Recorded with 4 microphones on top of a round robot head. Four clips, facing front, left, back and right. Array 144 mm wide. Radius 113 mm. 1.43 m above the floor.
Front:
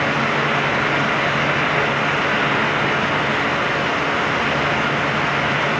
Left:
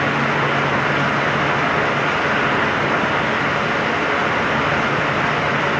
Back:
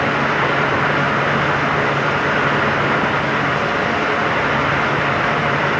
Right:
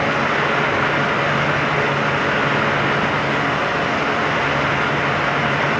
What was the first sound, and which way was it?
Only background noise.